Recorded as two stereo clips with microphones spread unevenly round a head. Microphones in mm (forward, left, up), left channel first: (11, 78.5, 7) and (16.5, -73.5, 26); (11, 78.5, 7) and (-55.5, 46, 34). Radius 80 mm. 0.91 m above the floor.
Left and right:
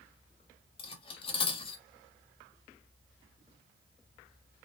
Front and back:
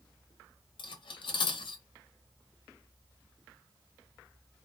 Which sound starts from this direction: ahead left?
Cutlery clinking, at 0.8 s.